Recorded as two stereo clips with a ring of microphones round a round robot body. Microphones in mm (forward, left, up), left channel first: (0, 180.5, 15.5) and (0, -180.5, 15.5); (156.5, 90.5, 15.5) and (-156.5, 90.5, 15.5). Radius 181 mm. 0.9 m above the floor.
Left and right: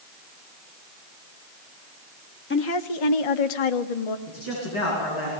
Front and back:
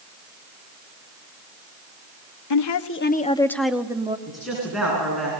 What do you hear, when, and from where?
2.5 s a woman speaking: 25° left, 1.1 m; by 4.2 s 105° left, 1.7 m
4.3 s a man speaking: 90° left, 8 m